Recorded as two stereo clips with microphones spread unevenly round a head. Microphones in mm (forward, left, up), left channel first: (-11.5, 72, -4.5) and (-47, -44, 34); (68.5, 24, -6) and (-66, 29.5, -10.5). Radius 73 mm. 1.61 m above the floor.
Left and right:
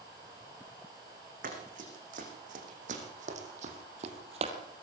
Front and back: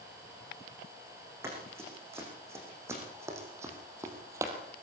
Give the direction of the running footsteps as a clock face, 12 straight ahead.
4 o'clock.